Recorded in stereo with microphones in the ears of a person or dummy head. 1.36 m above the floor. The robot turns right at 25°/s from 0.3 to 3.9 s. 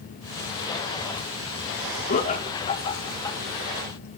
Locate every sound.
2.1 s laughter: 45° left (ahead or behind), 1.9 m; by 3.4 s 15° left (ahead or behind), 1.9 m